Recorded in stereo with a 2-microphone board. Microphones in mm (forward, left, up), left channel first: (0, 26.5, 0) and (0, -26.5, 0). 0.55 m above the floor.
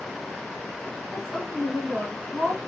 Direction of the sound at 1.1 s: 10° left (ahead or behind).